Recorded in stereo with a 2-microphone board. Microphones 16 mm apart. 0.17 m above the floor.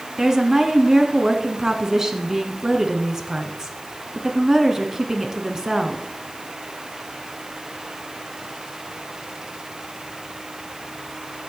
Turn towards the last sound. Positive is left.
turn(degrees=-35)  # may be behind; listen again after turning